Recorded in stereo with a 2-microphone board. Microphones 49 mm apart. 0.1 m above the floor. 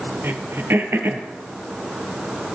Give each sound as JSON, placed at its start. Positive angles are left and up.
{"t": 0.2, "sound": "throat clearing", "side_deg": -50, "distance_m": 1.3}